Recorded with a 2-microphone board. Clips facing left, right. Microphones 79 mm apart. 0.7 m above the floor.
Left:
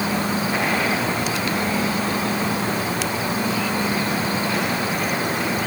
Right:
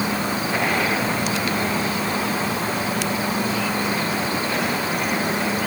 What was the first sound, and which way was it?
Only background noise.